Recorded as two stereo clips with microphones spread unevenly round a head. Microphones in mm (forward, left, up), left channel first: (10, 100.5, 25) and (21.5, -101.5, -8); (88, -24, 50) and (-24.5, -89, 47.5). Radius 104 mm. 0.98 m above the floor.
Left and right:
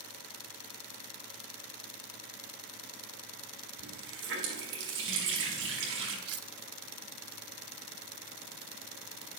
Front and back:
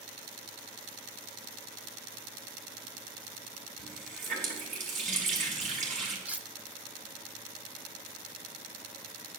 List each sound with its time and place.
3.8 s a running tap: 120° right, 5 m
6.2 s cutlery clinking: 70° right, 1.3 m